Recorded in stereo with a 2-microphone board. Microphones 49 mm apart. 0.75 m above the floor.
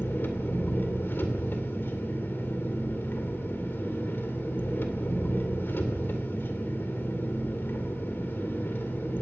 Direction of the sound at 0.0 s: 50° left (ahead or behind).